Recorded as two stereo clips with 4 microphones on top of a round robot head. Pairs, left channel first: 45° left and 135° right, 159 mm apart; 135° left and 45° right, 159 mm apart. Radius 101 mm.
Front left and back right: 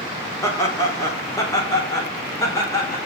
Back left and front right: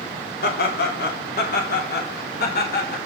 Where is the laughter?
115° left, 3.5 m.